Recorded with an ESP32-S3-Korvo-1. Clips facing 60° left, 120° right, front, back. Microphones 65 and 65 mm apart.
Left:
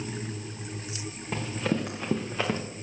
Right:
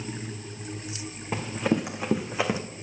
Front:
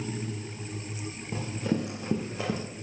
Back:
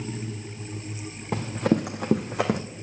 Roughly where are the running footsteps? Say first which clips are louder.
Right 3 dB, back 6 dB; behind.